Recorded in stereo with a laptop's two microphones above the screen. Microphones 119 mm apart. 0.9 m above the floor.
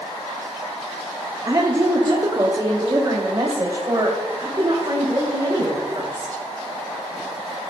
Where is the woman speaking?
35° right (ahead or behind), 1.3 m.